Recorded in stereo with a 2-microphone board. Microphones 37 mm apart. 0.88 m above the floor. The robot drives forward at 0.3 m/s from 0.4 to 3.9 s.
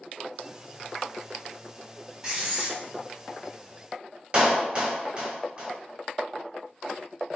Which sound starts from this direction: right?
A clap, at 4.3 s.